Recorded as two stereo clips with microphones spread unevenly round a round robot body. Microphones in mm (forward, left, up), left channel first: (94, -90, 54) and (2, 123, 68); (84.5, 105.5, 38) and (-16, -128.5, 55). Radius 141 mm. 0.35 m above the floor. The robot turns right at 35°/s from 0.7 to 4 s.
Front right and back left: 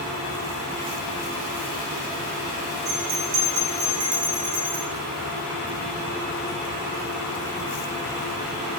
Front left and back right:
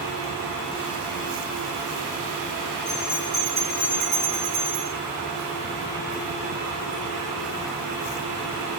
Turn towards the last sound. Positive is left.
turn(degrees=160)